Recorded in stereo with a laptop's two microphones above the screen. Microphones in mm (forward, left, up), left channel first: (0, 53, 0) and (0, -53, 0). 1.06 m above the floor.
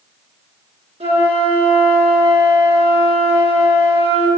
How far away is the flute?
About 5 m.